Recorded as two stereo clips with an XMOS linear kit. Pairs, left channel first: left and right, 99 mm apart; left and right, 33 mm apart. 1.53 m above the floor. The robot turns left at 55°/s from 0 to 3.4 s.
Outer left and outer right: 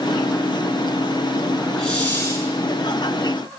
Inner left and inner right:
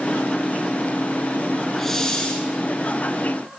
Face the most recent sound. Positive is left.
turn(degrees=80)